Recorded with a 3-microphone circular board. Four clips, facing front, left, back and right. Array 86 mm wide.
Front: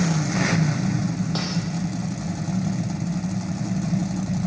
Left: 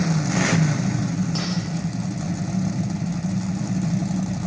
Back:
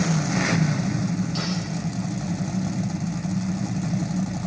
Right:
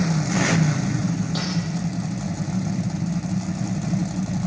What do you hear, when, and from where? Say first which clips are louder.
1.4 s cutlery clinking: left 1 dB, even; 5° left, 8 m